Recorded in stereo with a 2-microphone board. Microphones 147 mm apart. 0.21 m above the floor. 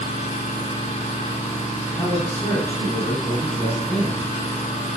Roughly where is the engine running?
Left.